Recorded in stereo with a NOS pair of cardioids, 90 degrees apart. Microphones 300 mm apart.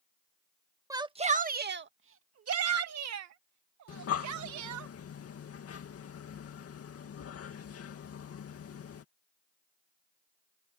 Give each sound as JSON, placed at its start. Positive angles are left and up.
{"t": 0.9, "sound": "a shout", "azimuth_deg": -10}
{"t": 3.9, "sound": "breathing", "azimuth_deg": 50}